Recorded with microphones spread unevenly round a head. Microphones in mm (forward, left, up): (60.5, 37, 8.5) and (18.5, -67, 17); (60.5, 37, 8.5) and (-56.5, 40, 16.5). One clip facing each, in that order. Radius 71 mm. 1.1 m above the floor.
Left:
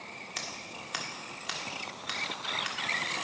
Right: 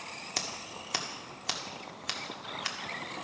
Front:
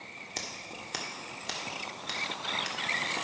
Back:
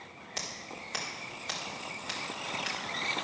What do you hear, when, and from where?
0.4 s scissors: 60° right, 1.5 m